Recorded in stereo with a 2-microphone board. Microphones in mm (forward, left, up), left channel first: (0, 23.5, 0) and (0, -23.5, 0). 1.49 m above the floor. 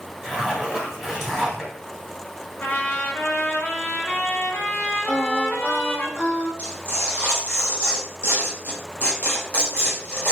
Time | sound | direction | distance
0.2 | a zipper | 10° right (ahead or behind) | 1.7 m
2.6 | a trumpet | 45° left (ahead or behind) | 0.6 m
5.1 | singing | 35° left (ahead or behind) | 1.6 m
6.6 | tearing paper | 40° left (ahead or behind) | 1.3 m